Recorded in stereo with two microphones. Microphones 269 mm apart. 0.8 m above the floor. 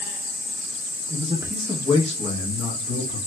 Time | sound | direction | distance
1.1 | a man speaking | 30° right (ahead or behind) | 0.7 m